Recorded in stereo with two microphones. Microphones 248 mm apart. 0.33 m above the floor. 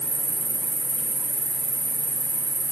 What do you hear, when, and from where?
0.0 s an insect: 55° right (ahead or behind), 1.9 m